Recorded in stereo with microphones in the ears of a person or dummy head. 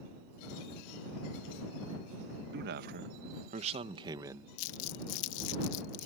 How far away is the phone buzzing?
I don't hear a phone buzzing.